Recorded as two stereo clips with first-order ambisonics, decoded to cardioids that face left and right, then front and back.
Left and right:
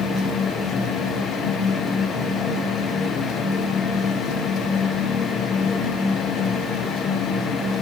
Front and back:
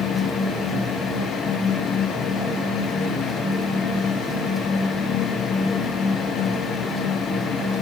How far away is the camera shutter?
I don't hear a camera shutter.